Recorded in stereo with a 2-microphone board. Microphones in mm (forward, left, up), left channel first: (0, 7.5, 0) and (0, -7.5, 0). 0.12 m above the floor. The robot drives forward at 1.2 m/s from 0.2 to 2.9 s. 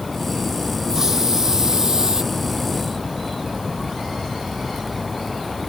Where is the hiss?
30° right (ahead or behind); by 2.2 s 40° right (ahead or behind).